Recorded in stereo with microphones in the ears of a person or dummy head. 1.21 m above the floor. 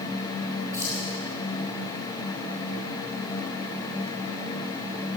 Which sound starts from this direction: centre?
Keys jangling, at 0.7 s.